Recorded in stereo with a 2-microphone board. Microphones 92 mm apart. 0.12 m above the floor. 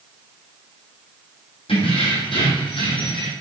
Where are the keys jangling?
75° left (ahead or behind), 4 m; by 3.3 s 65° left (ahead or behind), 3.5 m.